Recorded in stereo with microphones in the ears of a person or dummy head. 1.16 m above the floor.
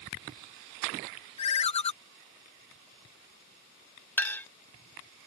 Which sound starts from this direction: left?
A ringtone, at 1.4 s.